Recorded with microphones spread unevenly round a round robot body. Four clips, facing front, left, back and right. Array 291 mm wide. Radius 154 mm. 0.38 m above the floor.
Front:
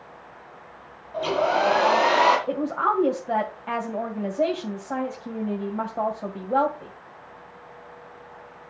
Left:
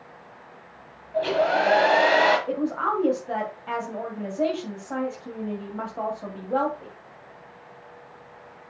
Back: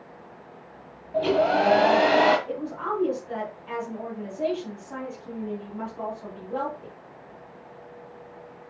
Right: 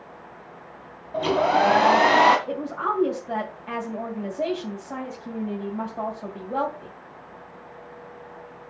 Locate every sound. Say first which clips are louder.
1.1 s a hair dryer: right 1 dB, back 1 dB; 130° right, 1.8 m
2.5 s a woman speaking: left 2 dB, front 6 dB; 15° left, 2.5 m